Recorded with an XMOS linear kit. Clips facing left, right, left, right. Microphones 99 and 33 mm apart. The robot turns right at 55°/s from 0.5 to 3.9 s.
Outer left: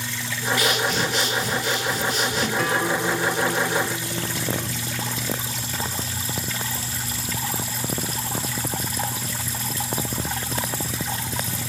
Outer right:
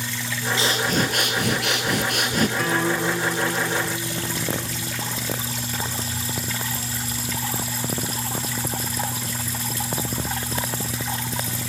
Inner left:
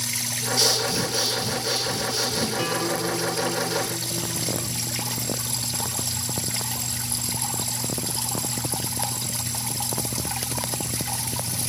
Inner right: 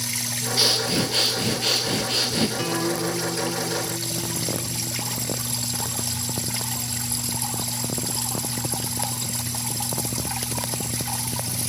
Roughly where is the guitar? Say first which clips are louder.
Even, even; ahead.